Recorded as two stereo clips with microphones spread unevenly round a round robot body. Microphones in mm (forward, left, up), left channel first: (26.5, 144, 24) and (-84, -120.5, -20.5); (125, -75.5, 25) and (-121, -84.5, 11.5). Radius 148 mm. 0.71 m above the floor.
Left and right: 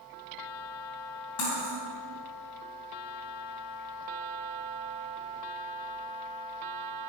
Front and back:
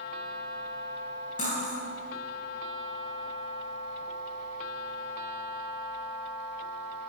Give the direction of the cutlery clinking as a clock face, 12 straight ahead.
10 o'clock.